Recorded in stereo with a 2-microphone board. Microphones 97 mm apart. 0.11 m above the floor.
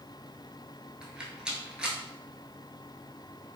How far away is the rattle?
About 0.7 m.